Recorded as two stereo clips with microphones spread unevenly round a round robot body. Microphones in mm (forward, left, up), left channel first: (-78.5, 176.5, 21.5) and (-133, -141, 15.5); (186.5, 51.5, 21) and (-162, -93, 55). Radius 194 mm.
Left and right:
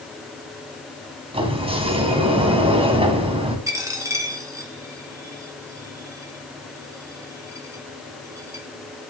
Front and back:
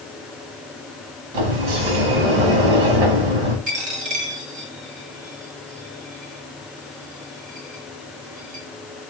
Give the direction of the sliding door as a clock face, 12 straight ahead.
6 o'clock.